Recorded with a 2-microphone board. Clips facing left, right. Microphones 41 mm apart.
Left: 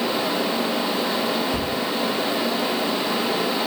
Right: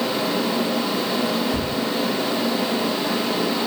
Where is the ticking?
50° left (ahead or behind), 1.1 m.